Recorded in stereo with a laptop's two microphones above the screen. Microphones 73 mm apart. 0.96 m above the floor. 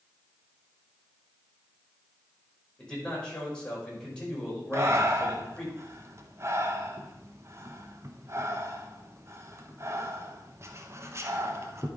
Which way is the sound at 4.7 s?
40° right (ahead or behind).